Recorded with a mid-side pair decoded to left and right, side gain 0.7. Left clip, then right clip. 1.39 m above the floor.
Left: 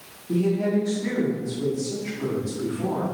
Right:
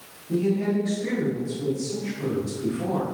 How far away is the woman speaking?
About 1.6 m.